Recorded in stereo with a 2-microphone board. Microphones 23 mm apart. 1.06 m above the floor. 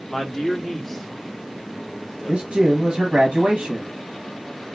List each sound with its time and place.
0.1 s a man speaking: 10° left (ahead or behind), 1.7 m; by 2.7 s 20° left (ahead or behind), 3.5 m
2.3 s a man speaking: 65° right (ahead or behind), 1.2 m